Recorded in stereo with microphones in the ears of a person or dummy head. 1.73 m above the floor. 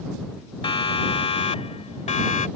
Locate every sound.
0.6 s a siren: 30° left (ahead or behind); by 2.5 s 40° left (ahead or behind)